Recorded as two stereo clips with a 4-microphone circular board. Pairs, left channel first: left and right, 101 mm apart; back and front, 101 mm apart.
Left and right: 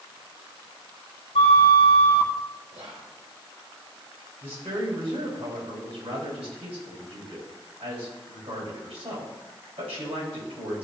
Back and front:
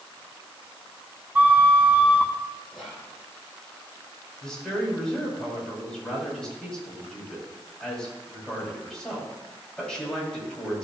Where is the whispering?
85° right, 4.5 m.